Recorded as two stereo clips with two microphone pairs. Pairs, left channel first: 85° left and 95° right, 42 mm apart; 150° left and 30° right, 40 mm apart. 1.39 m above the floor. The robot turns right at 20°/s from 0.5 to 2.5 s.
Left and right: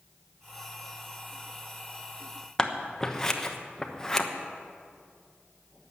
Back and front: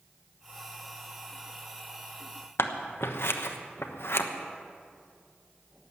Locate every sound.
2.6 s scissors: 160° left, 1.0 m